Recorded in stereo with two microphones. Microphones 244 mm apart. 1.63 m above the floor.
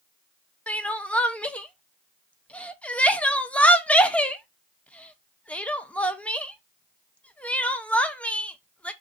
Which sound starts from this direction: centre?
Crying, at 0.7 s.